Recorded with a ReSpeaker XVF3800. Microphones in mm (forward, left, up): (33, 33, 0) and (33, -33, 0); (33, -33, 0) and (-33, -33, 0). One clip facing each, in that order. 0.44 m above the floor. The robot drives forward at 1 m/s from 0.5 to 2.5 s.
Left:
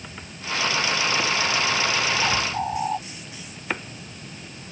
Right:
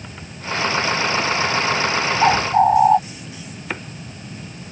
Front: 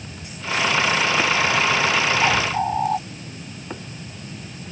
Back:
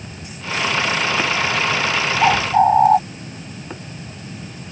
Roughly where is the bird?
Behind right.